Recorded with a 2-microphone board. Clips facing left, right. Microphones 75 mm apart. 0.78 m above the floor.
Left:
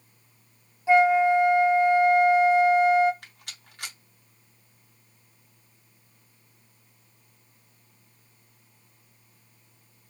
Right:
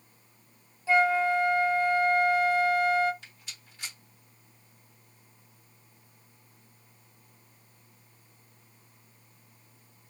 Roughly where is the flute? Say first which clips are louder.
Left 5 dB; left.